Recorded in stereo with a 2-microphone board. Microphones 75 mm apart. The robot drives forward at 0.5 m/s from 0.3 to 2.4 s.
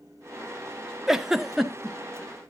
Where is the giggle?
5° right (ahead or behind), 0.5 m.